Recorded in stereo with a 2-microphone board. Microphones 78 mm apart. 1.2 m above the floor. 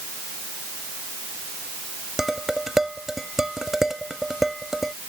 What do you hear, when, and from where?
2.2 s dishes clattering: 5° right (ahead or behind)